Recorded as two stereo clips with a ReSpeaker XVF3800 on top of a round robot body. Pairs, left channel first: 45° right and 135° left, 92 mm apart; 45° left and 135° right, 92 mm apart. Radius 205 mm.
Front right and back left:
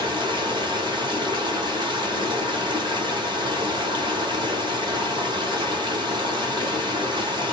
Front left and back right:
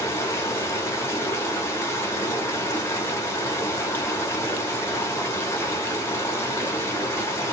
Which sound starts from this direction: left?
Running water, at 0.0 s.